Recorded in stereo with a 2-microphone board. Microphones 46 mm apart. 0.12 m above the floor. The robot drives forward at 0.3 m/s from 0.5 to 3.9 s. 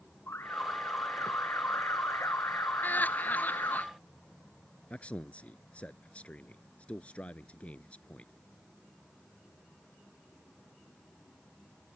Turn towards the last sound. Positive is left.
turn(degrees=30)  # may be behind; listen again after turning